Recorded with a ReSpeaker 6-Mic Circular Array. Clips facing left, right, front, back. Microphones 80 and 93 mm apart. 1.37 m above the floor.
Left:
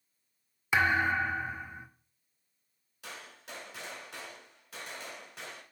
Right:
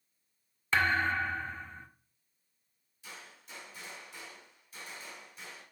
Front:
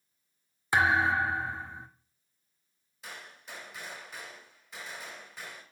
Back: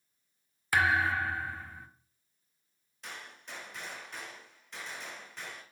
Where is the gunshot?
85° left, 3 m.